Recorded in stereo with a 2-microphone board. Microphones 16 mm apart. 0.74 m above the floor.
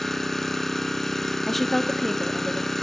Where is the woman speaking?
15° left (ahead or behind), 1.0 m.